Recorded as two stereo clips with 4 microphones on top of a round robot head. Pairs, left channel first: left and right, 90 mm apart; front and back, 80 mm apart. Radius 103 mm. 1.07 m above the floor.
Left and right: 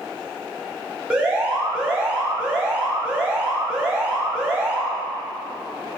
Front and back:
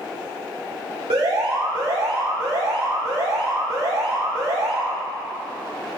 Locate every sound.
1.1 s an alarm: 170° right, 4 m